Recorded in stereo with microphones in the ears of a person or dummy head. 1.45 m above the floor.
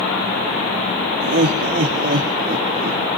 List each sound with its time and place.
1.2 s laughter: 55° right (ahead or behind), 1.9 m; by 3.0 s 35° right (ahead or behind), 0.8 m